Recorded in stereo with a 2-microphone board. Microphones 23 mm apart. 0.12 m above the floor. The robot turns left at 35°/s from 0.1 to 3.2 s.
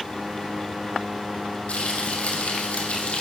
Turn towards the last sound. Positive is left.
turn(degrees=60)